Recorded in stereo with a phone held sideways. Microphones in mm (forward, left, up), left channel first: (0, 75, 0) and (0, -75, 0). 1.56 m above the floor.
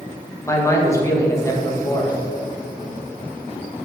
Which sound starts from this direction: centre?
A man speaking, at 0.5 s.